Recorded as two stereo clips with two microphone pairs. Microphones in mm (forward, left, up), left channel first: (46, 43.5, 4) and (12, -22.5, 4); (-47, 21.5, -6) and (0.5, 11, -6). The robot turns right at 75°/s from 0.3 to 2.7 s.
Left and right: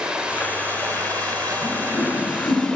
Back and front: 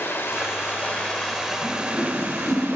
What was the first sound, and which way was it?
Running water, 170° left.